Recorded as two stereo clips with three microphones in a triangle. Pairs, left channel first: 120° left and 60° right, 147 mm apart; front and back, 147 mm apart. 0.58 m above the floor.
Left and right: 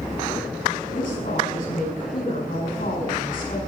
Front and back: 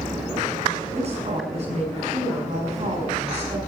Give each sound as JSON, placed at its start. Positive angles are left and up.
{"t": 0.9, "sound": "a woman speaking", "azimuth_deg": 140, "distance_m": 5.5}